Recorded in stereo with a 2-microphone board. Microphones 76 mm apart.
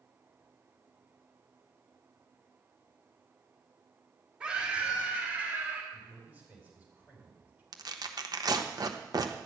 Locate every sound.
4.4 s a scream: 10° right (ahead or behind), 3 m; by 5.8 s 20° right (ahead or behind), 3 m
5.9 s a man speaking: 20° right (ahead or behind), 4.5 m
7.7 s tearing paper: 55° right (ahead or behind), 1.0 m